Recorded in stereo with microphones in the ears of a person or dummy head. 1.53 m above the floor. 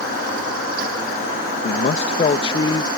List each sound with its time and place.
1.6 s a man speaking: 45° left (ahead or behind); by 2.9 s 25° left (ahead or behind)